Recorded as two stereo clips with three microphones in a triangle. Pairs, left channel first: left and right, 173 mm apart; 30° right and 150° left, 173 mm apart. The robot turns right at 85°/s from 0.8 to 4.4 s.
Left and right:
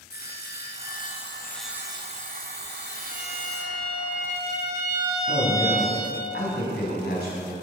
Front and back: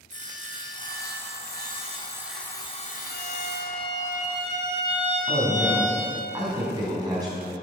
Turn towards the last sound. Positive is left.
turn(degrees=85)